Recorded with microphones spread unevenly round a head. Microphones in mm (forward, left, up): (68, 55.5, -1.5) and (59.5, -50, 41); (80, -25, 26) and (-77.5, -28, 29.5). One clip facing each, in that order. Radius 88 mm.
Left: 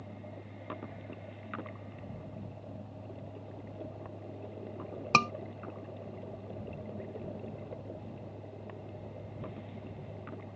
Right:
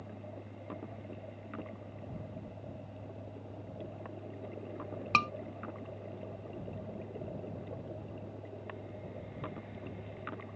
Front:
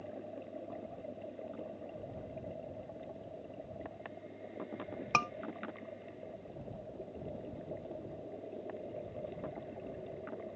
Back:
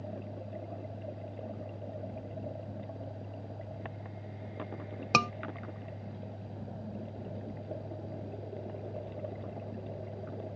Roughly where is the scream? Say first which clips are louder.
Left 4 dB, back 6 dB; behind left.